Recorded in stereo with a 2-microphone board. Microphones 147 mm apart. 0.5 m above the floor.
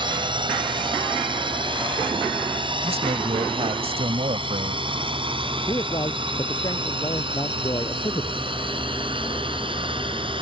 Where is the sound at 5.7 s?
30° left (ahead or behind).